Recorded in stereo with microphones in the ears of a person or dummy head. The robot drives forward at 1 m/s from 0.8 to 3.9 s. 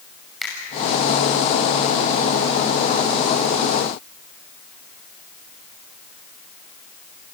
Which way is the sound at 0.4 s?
Centre (ahead or behind).